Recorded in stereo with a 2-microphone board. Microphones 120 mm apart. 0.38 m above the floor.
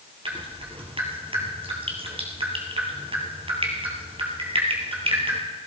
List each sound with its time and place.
0.2 s dripping: 55° right (ahead or behind), 3.5 m